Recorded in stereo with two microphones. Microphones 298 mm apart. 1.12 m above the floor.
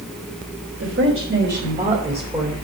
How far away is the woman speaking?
About 3.5 m.